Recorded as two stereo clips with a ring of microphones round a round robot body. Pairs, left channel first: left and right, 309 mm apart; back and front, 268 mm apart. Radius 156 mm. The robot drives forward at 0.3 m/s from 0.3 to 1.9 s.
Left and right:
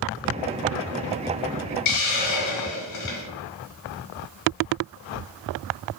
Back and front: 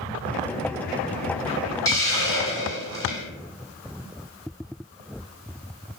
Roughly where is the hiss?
Left.